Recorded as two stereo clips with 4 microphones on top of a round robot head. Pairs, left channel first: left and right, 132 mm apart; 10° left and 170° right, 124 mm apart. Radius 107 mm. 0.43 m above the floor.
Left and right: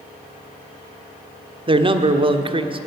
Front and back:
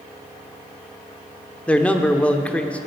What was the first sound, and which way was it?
A man speaking, 70° right.